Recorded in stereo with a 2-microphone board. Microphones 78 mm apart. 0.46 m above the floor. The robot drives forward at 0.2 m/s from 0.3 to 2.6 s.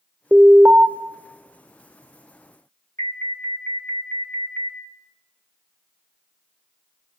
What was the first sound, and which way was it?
An alarm, 25° right (ahead or behind).